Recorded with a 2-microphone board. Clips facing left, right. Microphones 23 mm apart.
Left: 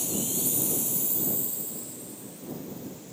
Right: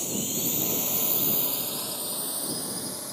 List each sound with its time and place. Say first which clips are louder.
0.0 s a drone: right 1 dB; 15° right (ahead or behind); by 3.1 s 75° right (ahead or behind)